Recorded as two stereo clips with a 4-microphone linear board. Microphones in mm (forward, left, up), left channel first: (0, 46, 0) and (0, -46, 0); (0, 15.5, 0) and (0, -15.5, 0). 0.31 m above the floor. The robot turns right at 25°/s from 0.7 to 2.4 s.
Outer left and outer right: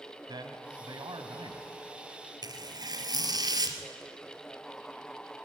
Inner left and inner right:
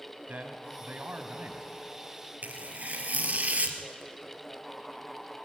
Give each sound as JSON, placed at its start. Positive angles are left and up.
{"t": 0.3, "sound": "a man speaking", "side_deg": -50, "distance_m": 2.0}
{"t": 2.4, "sound": "tearing paper", "side_deg": -45, "distance_m": 2.0}